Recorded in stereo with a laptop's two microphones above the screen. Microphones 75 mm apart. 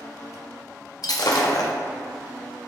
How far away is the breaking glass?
About 0.8 m.